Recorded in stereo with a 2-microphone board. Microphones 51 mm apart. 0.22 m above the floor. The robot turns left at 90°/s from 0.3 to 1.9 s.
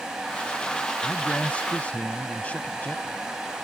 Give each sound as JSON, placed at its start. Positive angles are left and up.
{"t": 1.0, "sound": "a man speaking", "side_deg": 10}